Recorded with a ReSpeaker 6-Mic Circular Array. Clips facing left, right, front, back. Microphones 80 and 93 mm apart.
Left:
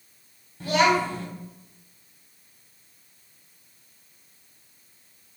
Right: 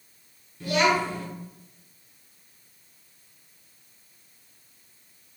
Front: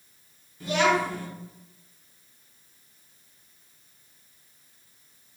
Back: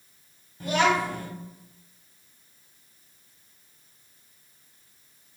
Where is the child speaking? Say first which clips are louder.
Left 2 dB, even; 140° left, 1.4 m.